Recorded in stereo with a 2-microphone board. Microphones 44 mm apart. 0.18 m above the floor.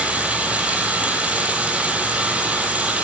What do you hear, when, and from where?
0.0 s running water: 30° right (ahead or behind), 1.5 m